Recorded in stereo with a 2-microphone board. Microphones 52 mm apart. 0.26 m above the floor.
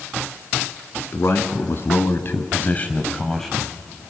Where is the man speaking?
55° left (ahead or behind), 3 m; by 3.7 s 5° right (ahead or behind), 1.9 m.